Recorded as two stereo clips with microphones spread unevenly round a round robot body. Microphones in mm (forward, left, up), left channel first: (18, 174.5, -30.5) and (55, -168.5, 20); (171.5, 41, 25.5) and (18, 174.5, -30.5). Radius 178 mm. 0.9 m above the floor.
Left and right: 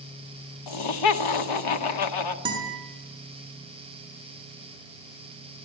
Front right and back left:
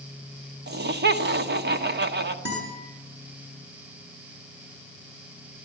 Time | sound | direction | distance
0.7 | laughter | 110° left | 1.7 m
2.5 | a guitar | 160° right | 7.5 m